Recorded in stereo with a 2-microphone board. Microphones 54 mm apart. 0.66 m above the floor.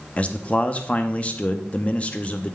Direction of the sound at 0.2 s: 25° left (ahead or behind).